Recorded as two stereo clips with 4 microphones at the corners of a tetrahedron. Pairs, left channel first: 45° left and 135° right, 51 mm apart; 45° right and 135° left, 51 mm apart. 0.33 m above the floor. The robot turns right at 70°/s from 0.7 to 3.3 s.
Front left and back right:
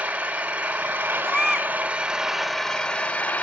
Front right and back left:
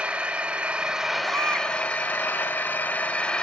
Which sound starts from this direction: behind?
An engine running, at 0.0 s.